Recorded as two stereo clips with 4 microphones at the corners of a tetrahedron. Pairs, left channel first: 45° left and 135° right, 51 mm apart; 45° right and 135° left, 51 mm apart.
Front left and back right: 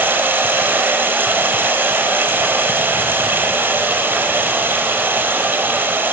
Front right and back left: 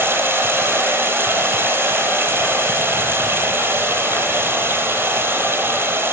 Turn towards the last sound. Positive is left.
turn(degrees=180)